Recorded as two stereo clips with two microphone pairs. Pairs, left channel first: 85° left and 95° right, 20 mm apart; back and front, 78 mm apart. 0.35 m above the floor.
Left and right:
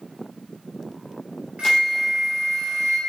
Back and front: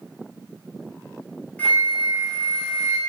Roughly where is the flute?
Behind right.